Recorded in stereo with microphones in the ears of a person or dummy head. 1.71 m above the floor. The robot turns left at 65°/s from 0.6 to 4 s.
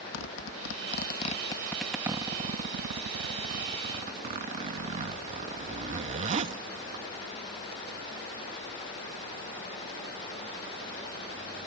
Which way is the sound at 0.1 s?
80° left.